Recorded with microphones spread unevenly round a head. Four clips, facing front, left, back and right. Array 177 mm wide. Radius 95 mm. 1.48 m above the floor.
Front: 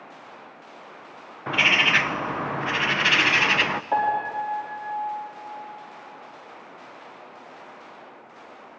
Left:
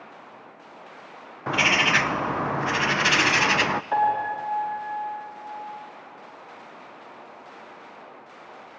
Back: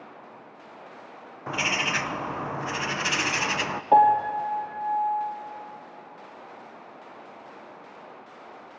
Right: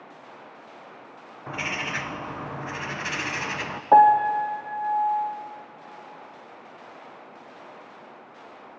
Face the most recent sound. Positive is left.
turn(degrees=-125)